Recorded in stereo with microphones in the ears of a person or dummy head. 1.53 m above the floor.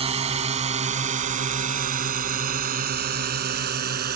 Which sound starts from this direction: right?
A drone, at 0.0 s.